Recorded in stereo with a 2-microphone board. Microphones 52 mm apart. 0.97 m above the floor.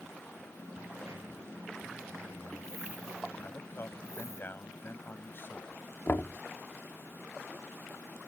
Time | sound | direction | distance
0.6 | a dropped coin | 80° right | ?
3.4 | a man speaking | 45° left (ahead or behind) | ?
6.1 | knocking | 45° left (ahead or behind) | ?